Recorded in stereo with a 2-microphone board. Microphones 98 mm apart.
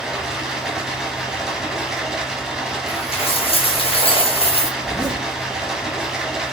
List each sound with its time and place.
0.0 s running water: 5° right (ahead or behind), 1.1 m
2.9 s a dropped coin: 80° left, 0.9 m
4.8 s a zipper: 45° left (ahead or behind), 1.3 m